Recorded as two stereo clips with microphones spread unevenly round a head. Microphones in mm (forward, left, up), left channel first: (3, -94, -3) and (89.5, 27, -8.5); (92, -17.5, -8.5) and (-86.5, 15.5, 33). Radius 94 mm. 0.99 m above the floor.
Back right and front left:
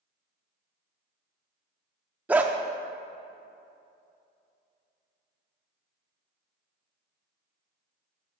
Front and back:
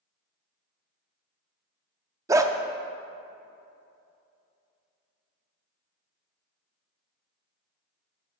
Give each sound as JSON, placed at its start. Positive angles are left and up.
{"t": 2.3, "sound": "a dog barking", "azimuth_deg": 130, "distance_m": 0.5}